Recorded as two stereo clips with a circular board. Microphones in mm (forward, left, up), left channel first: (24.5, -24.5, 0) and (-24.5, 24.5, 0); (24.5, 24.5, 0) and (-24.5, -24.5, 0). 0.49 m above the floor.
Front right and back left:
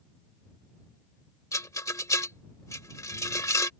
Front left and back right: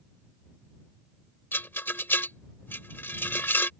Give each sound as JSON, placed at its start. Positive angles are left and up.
{"t": 1.5, "sound": "a rattle", "azimuth_deg": -10}